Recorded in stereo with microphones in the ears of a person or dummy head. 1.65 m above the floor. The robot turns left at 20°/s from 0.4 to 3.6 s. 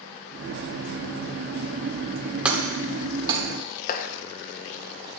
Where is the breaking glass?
5° right (ahead or behind), 2.5 m; by 3.4 s 25° right (ahead or behind), 2.5 m.